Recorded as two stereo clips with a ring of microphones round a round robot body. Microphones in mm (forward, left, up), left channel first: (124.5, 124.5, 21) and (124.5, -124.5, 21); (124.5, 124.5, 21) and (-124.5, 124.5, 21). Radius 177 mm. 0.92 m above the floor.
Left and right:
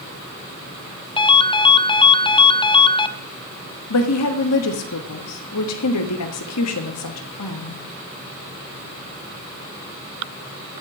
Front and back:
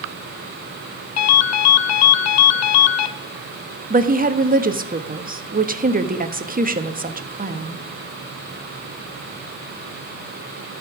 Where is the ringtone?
15° left, 0.8 m.